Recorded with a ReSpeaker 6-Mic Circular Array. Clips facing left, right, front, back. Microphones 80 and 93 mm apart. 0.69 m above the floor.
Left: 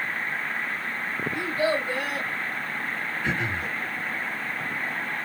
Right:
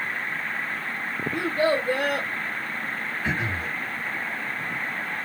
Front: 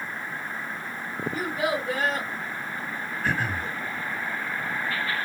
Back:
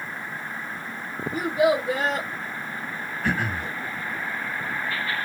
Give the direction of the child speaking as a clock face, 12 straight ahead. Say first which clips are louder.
Right 3 dB, back 7 dB; 4 o'clock.